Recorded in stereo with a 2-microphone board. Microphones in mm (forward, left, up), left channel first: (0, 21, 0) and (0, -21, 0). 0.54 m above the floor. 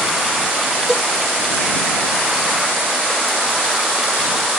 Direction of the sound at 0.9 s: 5° right (ahead or behind).